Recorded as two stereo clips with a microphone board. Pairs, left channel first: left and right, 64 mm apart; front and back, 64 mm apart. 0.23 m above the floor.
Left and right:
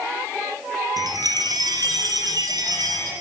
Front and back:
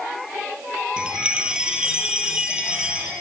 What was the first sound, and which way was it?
A chime, 105° right.